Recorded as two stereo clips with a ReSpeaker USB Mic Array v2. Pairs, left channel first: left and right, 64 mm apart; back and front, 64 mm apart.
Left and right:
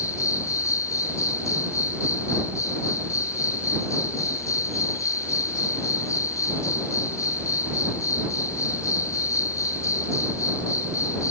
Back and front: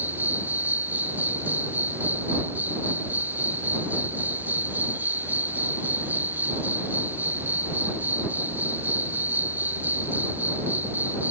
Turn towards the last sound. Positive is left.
turn(degrees=60)